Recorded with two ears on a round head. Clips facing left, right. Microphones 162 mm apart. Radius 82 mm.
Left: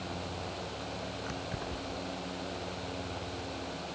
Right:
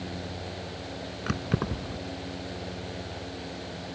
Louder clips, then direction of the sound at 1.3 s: Right 8 dB; 80° right.